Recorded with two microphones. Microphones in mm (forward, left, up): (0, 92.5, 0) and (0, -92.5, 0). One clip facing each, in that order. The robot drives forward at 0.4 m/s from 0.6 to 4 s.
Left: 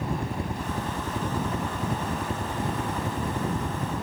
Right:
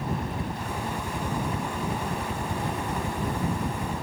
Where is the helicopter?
30° left (ahead or behind); by 4.0 s 35° left (ahead or behind).